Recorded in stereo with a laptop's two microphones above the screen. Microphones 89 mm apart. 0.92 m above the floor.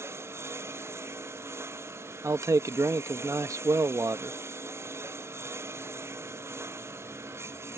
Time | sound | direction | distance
0.0 | a lawn mower | 30° right (ahead or behind) | ?
2.2 | a man speaking | 35° right (ahead or behind) | ?